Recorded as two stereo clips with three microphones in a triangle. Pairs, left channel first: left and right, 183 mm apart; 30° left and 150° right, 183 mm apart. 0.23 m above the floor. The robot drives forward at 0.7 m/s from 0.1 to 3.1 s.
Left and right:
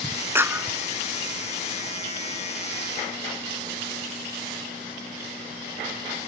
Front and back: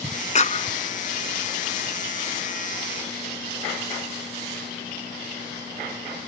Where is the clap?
15° right.